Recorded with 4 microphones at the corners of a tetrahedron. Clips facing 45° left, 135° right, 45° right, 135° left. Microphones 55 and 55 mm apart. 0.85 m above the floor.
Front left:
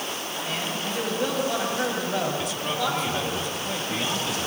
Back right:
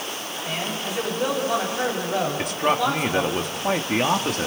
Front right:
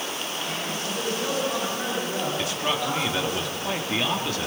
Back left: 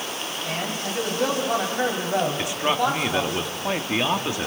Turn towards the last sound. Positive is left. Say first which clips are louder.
# back right 5 dB, back left 4 dB
turn(degrees=-160)